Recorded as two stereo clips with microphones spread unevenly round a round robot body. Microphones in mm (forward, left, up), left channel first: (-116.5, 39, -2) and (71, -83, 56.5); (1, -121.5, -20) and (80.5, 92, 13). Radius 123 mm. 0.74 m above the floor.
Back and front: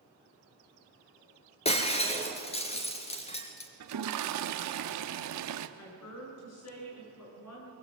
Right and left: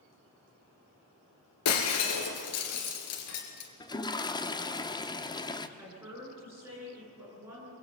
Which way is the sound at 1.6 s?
145° right.